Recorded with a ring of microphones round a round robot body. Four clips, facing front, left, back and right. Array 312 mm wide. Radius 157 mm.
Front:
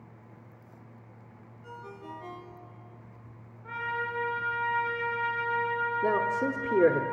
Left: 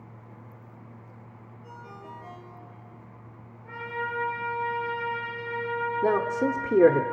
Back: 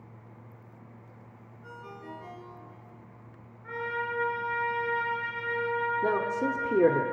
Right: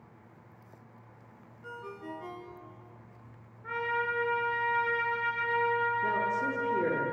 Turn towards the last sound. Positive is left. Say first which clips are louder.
# left 6 dB, front 3 dB
turn(degrees=100)